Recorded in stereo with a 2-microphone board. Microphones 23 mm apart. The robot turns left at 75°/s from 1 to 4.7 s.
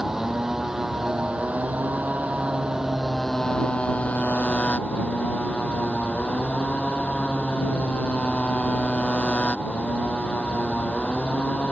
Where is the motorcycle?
20° right; by 11.7 s 60° left.